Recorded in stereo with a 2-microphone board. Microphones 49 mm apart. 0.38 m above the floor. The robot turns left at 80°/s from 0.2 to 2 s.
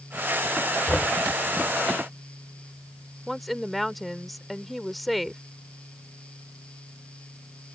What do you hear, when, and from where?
0.9 s knocking: 25° left (ahead or behind); by 1.1 s 30° left (ahead or behind)
3.3 s a woman speaking: centre (ahead or behind)